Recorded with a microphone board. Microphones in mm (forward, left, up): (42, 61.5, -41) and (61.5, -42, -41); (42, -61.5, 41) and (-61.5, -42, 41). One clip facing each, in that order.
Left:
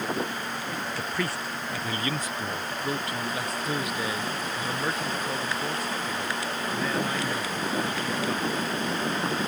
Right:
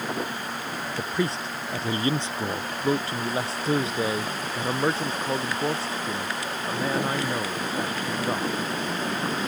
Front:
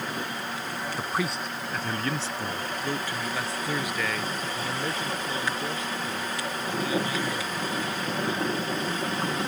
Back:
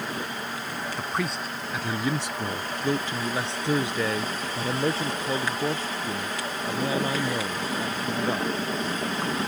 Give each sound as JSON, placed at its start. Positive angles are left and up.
{"t": 1.0, "sound": "a man speaking", "azimuth_deg": -80}